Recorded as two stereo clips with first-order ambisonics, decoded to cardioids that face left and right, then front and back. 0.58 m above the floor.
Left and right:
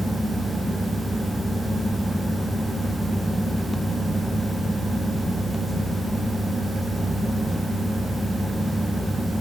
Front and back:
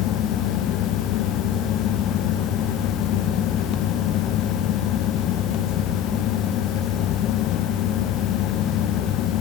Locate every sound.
Only background noise.